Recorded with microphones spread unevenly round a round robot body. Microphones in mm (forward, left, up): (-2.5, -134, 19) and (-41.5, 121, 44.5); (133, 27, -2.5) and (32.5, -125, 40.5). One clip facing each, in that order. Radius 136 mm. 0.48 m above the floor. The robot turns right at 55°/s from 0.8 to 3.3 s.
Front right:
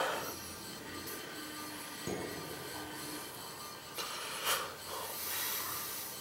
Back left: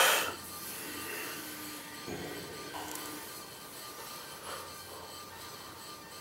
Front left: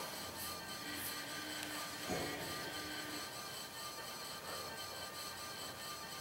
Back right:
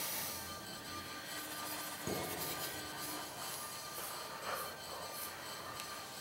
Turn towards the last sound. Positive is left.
turn(degrees=-50)